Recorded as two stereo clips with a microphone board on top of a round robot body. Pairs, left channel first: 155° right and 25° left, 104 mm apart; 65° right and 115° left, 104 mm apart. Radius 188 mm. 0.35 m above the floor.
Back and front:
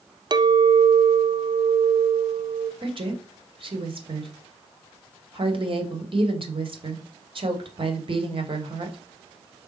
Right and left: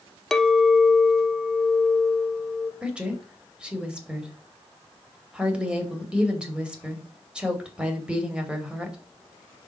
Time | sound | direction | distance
0.3 | a clink | 15° left | 0.7 m
2.8 | a woman speaking | 35° left | 1.9 m